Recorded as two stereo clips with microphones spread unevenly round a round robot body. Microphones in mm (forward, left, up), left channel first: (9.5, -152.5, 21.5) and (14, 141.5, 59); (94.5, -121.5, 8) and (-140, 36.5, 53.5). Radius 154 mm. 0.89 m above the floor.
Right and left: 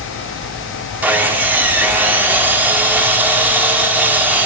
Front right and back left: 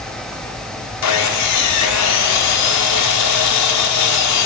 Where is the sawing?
5° left, 1.2 m.